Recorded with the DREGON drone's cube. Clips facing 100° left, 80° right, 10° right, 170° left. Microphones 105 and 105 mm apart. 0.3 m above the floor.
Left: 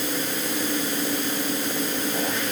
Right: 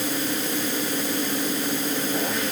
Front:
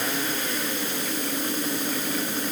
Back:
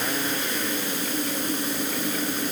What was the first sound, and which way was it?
Only background noise.